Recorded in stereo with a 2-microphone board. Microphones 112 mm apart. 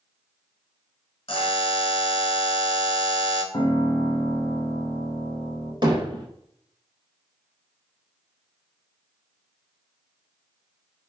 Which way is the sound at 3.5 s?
30° left (ahead or behind).